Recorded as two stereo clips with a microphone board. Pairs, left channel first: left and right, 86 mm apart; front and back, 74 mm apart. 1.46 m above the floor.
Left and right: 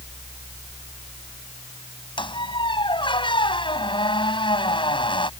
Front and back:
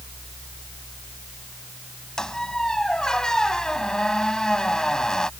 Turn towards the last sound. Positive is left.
turn(degrees=80)